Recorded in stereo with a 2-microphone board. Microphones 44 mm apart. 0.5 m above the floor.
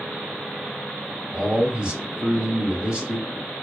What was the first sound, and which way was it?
A man speaking, 25° right (ahead or behind).